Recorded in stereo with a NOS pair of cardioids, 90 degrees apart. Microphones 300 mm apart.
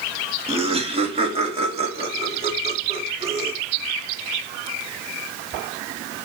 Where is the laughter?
20° right, 2 m.